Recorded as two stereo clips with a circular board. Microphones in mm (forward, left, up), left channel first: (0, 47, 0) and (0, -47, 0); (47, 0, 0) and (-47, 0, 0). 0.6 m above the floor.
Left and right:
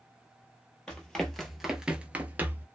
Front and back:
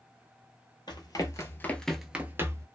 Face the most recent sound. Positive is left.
turn(degrees=-145)